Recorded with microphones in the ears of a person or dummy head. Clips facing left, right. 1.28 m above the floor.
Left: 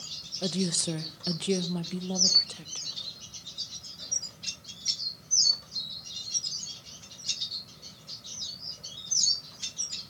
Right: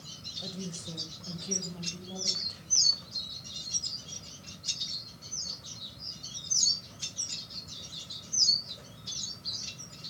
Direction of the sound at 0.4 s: 70° left (ahead or behind).